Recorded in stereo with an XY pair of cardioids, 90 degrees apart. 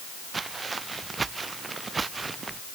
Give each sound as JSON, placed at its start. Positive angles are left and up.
{"t": 0.3, "sound": "footsteps", "azimuth_deg": -30}